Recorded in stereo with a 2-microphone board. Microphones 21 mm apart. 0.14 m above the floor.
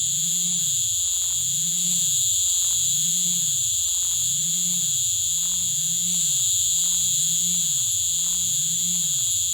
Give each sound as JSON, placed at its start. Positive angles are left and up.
{"t": 0.0, "sound": "an insect", "side_deg": 30}